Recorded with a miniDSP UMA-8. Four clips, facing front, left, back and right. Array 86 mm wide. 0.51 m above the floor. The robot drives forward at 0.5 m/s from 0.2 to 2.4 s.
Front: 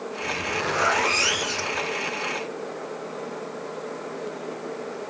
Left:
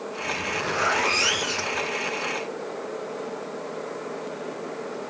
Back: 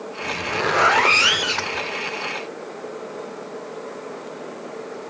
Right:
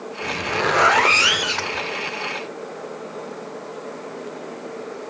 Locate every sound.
0.2 s a zipper: 110° right, 0.8 m; by 1.9 s 150° right, 1.3 m